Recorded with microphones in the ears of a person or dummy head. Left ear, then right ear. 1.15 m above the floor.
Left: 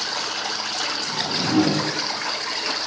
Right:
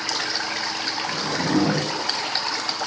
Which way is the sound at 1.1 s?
40° right (ahead or behind).